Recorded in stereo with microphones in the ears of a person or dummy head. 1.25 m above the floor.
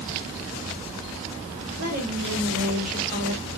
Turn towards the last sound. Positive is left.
turn(degrees=-50)  # may be behind; listen again after turning